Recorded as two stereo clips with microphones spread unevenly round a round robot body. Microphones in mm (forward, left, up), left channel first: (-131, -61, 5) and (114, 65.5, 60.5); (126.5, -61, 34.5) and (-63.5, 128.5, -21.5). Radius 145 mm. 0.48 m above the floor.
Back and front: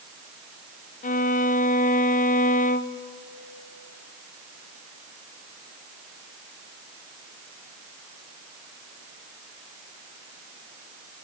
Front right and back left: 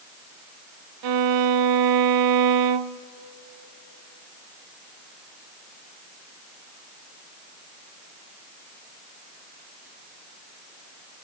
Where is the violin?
140° left, 0.6 m.